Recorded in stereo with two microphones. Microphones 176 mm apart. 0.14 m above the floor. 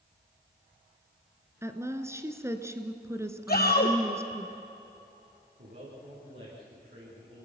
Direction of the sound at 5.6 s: 65° right (ahead or behind).